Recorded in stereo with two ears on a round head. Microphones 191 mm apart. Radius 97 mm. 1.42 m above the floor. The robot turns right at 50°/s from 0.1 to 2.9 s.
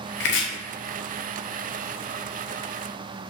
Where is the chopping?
50° left (ahead or behind), 0.7 m; by 0.5 s 60° left (ahead or behind), 0.7 m.